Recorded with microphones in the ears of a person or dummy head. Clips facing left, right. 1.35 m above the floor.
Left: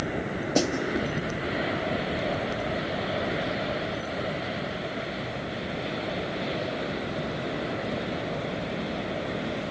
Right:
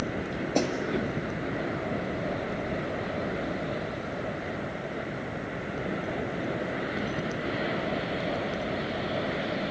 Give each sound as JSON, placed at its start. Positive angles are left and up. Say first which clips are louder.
{"t": 0.6, "sound": "a snare drum", "louder": "left 2 dB", "side_deg": 5, "distance_m": 1.9}